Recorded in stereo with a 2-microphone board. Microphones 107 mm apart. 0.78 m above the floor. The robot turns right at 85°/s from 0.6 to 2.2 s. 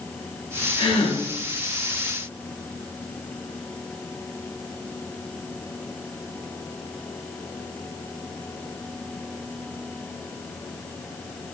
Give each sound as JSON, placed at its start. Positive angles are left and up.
{"t": 0.8, "sound": "a gasp", "azimuth_deg": 40, "distance_m": 0.6}